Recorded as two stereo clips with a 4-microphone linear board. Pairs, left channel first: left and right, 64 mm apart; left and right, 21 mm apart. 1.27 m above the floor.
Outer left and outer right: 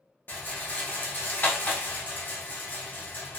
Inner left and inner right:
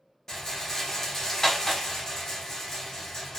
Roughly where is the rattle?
Left.